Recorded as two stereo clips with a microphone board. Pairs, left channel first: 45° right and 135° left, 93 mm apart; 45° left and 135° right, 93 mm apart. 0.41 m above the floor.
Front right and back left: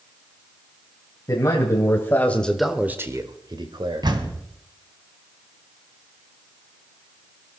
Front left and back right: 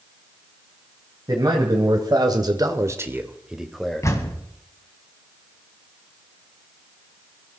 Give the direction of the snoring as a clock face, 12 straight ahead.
I don't hear snoring.